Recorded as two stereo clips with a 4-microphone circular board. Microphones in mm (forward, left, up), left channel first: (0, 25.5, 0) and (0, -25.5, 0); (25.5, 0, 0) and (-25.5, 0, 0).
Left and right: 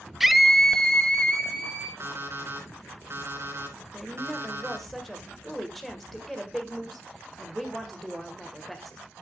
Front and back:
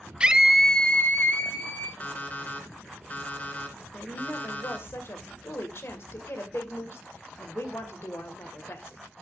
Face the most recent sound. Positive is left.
turn(degrees=5)